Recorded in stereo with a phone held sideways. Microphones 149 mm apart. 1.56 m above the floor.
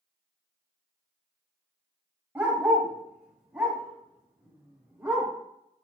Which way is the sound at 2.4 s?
10° right (ahead or behind).